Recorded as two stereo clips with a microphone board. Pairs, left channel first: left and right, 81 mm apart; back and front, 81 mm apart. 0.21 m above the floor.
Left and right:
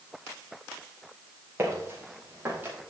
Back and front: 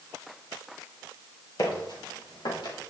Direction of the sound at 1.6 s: 150° right.